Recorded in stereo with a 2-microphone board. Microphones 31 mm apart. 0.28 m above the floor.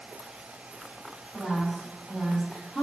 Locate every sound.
1.3 s a woman speaking: 5° right (ahead or behind), 1.6 m; by 2.9 s 20° left (ahead or behind), 2.0 m